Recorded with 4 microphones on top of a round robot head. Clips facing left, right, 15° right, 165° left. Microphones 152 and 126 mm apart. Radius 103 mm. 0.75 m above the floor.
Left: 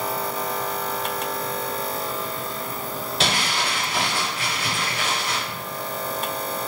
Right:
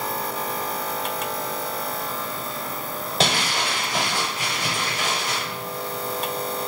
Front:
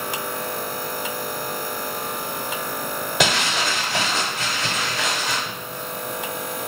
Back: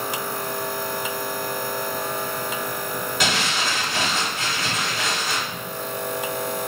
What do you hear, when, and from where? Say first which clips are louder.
3.2 s crumpling: right 2 dB, front 4 dB; 30° right, 0.6 m